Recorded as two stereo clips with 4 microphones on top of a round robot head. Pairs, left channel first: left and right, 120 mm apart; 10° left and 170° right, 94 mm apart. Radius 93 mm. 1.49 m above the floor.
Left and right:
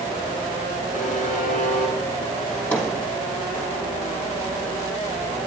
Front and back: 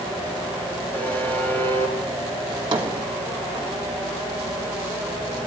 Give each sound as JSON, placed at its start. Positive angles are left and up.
{"t": 0.9, "sound": "a buzzer", "azimuth_deg": 80, "distance_m": 5.0}
{"t": 2.5, "sound": "a drawer", "azimuth_deg": 170, "distance_m": 1.3}